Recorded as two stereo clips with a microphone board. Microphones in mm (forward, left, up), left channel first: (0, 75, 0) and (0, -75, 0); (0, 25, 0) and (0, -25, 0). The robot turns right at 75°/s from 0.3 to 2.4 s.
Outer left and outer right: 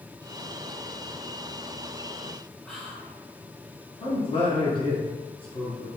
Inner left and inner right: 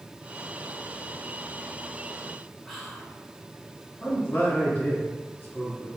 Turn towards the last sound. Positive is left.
turn(degrees=35)  # may be behind; listen again after turning